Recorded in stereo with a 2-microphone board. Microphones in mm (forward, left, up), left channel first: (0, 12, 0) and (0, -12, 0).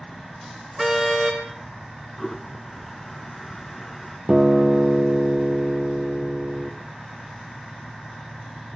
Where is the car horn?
Centre (ahead or behind), 3.5 m.